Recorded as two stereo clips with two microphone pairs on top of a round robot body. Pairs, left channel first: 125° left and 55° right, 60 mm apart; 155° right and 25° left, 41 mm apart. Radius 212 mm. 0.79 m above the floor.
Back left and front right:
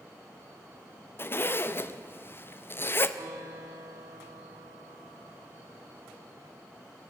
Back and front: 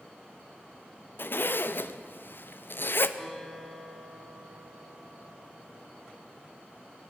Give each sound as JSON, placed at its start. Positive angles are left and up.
{"t": 1.2, "sound": "a zipper", "azimuth_deg": 175, "distance_m": 0.9}
{"t": 3.2, "sound": "a guitar", "azimuth_deg": -70, "distance_m": 4.0}